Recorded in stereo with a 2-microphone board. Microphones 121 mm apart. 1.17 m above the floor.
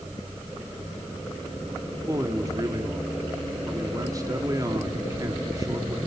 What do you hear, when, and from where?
1.9 s a man speaking: 30° right (ahead or behind), 2.5 m